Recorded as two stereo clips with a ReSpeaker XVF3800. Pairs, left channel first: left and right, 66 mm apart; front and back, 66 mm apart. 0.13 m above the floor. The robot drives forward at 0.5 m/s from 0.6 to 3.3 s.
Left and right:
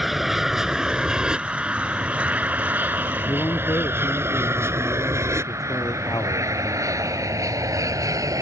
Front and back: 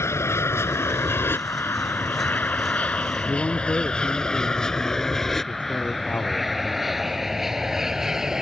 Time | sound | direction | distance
0.0 | an aircraft | 5° right | ?
3.3 | a man speaking | 65° left | ?